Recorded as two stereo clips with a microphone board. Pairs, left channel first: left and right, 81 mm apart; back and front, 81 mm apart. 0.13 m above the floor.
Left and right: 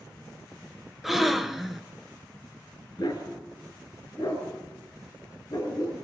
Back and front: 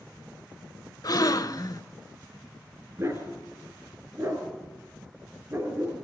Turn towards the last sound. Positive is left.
turn(degrees=55)